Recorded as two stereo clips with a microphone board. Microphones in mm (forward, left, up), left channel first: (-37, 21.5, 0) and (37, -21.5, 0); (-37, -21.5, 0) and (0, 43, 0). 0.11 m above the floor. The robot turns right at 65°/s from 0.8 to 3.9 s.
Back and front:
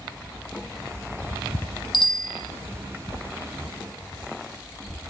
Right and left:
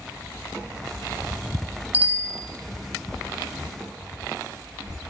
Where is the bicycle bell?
125° left, 2.5 m; by 2.4 s 160° left, 2.5 m.